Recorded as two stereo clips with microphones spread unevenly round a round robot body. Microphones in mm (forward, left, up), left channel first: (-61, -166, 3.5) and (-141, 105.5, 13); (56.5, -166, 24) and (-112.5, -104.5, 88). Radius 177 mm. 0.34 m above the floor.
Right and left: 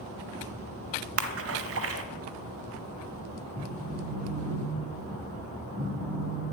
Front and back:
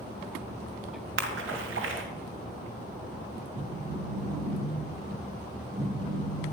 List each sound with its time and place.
1.2 s a splash: 140° left, 1.9 m
3.5 s a phone buzzing: 170° left, 7 m